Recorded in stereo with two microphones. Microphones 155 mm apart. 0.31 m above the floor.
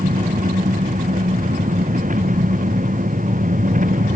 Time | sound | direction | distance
0.0 | an engine running | 55° right (ahead or behind) | ?